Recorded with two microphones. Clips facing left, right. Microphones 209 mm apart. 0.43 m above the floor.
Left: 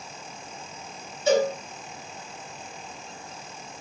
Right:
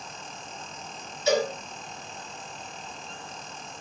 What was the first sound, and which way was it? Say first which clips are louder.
A cowbell: left 3 dB; 55° left (ahead or behind).